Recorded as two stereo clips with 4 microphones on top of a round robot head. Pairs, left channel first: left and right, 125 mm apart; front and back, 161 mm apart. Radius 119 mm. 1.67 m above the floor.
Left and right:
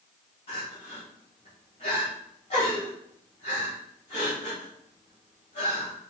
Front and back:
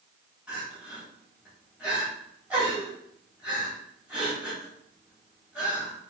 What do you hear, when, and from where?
0.5 s crying: 100° left, 1.2 m